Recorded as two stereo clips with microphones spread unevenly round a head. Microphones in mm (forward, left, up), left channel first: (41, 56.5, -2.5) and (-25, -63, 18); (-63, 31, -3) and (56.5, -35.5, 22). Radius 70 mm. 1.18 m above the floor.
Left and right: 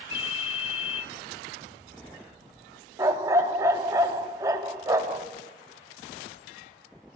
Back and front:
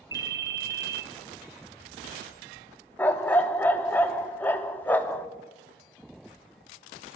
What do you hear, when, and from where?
0.1 s a ringtone: 10° left, 0.8 m
3.0 s a dog barking: 125° right, 0.7 m